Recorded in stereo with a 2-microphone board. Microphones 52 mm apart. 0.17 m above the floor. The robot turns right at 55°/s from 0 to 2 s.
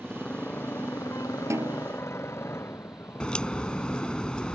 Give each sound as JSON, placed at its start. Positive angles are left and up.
{"t": 0.0, "sound": "a motorcycle", "azimuth_deg": 10}
{"t": 1.5, "sound": "a snare drum", "side_deg": -70}
{"t": 3.2, "sound": "a crack", "side_deg": 20}